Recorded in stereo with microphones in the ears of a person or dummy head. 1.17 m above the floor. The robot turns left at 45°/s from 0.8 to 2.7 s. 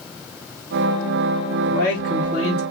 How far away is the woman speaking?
About 2 m.